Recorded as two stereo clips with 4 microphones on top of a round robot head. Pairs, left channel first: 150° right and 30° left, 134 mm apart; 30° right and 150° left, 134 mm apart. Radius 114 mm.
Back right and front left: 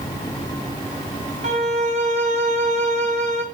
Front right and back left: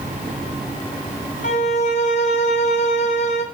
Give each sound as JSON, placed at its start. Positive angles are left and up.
{"t": 1.4, "sound": "a violin", "azimuth_deg": 0, "distance_m": 1.3}